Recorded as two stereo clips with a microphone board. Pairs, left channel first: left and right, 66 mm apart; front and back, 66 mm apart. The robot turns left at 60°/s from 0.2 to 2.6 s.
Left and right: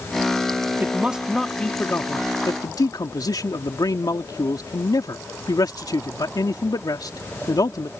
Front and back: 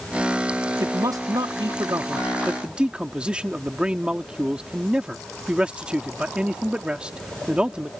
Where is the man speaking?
145° right; by 7.9 s 105° left.